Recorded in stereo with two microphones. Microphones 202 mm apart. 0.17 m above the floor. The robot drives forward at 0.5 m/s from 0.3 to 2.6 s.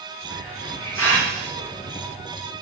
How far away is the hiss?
About 6.5 m.